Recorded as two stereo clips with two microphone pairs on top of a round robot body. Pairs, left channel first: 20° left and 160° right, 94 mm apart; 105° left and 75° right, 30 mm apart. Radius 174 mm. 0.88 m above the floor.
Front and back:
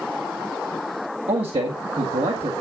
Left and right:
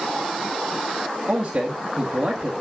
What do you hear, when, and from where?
1.3 s a man speaking: 140° right, 1.8 m